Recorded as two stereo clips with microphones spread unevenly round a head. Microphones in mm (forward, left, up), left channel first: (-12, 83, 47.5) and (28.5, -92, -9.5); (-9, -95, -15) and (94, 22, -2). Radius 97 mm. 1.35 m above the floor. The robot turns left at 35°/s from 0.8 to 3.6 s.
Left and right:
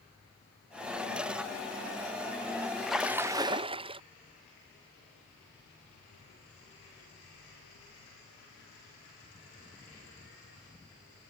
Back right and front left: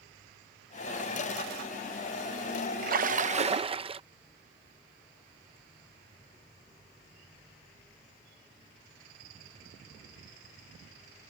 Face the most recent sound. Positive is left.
turn(degrees=-10)